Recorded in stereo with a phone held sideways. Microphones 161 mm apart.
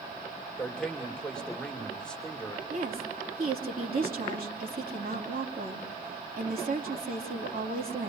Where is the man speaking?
5° left (ahead or behind), 2 m.